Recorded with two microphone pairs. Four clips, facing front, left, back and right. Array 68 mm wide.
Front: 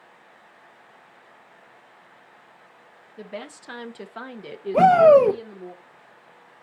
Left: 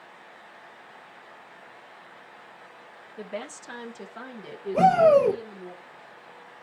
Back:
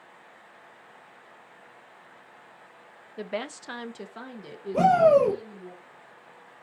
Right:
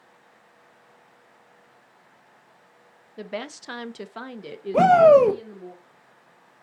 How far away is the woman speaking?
About 0.6 m.